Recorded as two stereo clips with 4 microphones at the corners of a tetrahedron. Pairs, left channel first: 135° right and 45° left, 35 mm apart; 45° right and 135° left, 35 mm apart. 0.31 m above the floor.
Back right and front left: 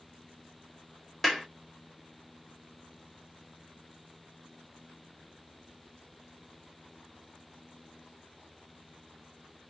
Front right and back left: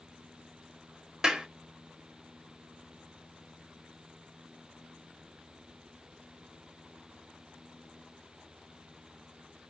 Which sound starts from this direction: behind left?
A clap, at 1.2 s.